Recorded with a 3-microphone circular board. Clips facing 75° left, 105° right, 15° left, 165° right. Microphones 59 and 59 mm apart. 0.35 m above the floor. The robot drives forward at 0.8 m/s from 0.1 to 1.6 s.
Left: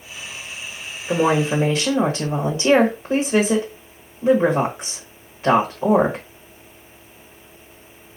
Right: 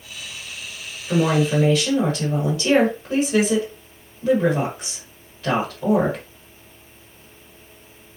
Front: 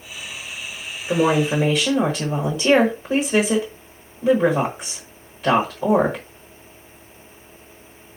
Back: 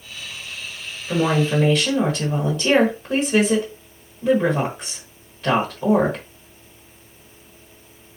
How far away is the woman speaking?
About 1.4 m.